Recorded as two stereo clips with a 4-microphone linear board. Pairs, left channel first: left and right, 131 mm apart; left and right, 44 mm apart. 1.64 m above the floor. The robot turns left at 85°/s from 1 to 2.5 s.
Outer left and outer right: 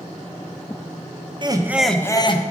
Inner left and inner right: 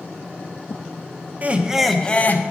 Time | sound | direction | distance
1.4 | laughter | 140° right | 0.9 m